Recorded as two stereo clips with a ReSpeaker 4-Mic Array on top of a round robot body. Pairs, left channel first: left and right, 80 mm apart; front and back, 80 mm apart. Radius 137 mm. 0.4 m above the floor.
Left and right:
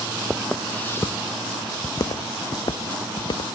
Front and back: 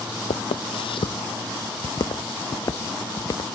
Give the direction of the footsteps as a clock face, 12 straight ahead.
12 o'clock.